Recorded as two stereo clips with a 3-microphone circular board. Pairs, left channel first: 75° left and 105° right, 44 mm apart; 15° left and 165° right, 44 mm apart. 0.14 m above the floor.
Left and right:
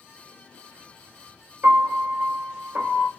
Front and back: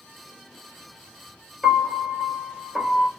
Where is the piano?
80° right, 1.1 m.